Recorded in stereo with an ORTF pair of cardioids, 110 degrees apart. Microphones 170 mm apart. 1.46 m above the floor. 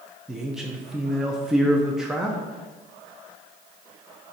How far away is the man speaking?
About 0.8 m.